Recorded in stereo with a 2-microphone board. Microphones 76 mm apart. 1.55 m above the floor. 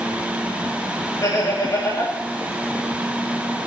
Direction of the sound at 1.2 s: 45° left (ahead or behind).